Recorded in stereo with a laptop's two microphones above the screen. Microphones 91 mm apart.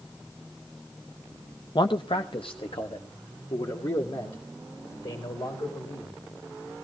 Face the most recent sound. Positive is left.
turn(degrees=75)  # may be behind; listen again after turning